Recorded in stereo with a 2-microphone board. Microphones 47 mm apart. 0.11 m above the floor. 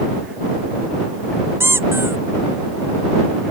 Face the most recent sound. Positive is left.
turn(degrees=-65)  # may be behind; listen again after turning